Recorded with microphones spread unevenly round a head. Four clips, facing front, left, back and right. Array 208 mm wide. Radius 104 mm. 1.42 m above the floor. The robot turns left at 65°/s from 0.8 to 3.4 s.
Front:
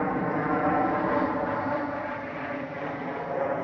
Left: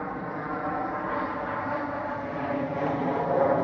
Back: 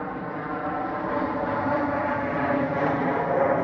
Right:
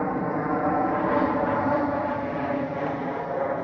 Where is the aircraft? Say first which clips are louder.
Right 7 dB, front 4 dB; 55° right; by 3.6 s 140° left.